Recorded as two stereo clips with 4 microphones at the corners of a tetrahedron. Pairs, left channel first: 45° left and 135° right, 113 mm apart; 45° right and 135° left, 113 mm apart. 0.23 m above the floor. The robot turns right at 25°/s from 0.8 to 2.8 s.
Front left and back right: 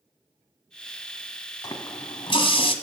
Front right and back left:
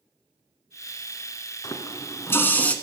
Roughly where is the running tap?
Ahead.